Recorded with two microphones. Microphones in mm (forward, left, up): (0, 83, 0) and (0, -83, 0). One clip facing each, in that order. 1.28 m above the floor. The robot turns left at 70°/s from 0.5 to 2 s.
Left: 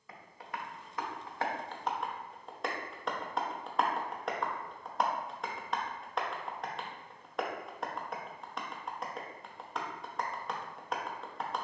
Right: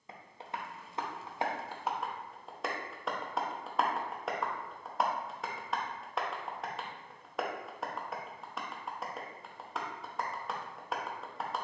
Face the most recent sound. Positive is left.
turn(degrees=0)  # may be behind; listen again after turning